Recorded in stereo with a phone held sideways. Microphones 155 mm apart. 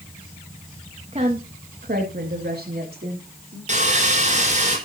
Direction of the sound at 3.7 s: 50° right (ahead or behind).